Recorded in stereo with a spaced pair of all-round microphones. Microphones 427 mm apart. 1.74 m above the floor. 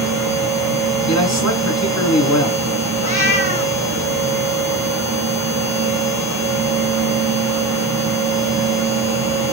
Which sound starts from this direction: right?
A machine running, at 0.0 s.